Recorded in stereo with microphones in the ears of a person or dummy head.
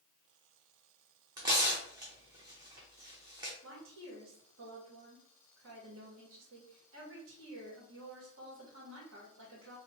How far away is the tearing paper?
About 0.6 m.